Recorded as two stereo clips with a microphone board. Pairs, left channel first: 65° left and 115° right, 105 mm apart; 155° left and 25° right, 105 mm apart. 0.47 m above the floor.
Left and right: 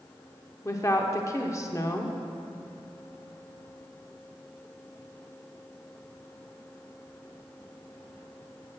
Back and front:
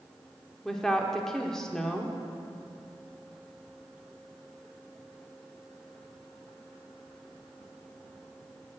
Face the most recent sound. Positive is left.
turn(degrees=75)